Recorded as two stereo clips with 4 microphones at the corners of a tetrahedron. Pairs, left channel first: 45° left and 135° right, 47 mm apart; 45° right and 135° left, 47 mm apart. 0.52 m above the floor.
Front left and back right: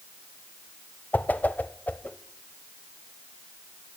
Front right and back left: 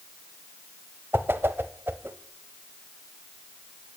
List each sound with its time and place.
1.1 s a whoosh: 95° left, 0.5 m